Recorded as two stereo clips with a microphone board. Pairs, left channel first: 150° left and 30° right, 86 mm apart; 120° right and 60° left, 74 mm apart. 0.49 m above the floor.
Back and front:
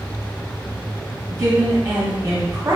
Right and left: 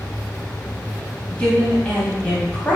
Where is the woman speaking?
55° right, 0.7 m.